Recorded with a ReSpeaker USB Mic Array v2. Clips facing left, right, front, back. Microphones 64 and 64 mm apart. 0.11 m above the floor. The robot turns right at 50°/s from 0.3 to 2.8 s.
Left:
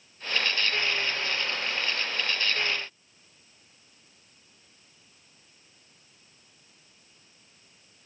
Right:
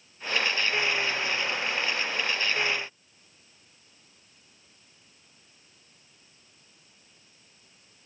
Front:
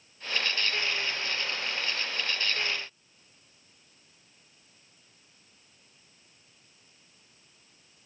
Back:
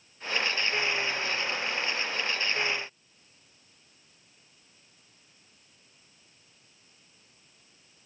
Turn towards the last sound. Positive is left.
No sound to turn to.